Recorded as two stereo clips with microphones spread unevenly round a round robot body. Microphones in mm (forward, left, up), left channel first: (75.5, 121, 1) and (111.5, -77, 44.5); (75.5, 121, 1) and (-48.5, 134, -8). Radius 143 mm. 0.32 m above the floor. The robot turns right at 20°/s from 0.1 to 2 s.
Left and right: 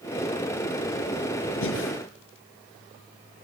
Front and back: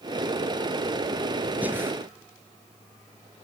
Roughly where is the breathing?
Left.